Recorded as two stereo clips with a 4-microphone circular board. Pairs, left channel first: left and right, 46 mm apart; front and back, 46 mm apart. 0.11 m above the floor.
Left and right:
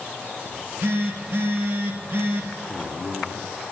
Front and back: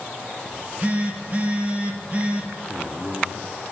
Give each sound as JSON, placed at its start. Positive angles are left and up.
{"t": 0.5, "sound": "a phone buzzing", "azimuth_deg": -120, "distance_m": 1.5}
{"t": 2.7, "sound": "a man speaking", "azimuth_deg": -165, "distance_m": 1.2}